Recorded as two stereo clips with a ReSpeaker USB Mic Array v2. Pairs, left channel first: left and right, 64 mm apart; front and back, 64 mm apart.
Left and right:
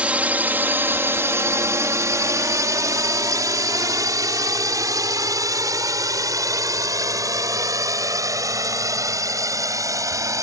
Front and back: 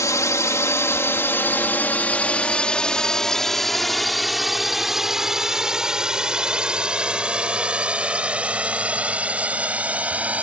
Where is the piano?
No piano in this recording.